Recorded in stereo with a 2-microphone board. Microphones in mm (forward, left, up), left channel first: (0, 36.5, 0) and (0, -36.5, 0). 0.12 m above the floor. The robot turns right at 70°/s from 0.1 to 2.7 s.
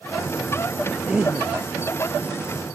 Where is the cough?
Straight behind; by 1.5 s 140° right.